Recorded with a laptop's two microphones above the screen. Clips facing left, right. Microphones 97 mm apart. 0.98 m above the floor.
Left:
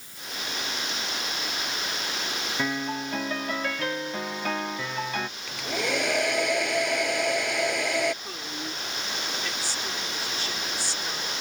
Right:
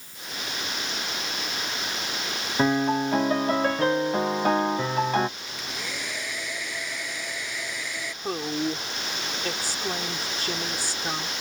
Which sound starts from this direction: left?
A hair dryer, at 5.5 s.